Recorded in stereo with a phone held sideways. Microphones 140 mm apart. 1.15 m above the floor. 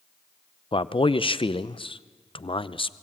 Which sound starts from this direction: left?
A man speaking, at 0.7 s.